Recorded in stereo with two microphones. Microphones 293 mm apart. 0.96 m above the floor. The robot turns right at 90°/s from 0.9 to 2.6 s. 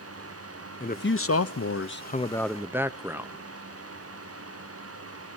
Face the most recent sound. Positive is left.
turn(degrees=-170)